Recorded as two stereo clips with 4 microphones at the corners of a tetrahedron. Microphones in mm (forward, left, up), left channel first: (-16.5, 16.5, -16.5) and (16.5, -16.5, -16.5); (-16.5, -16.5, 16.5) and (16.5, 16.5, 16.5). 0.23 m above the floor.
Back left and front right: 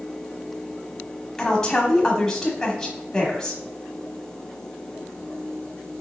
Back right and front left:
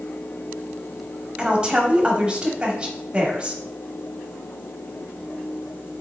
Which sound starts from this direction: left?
A woman speaking, at 1.4 s.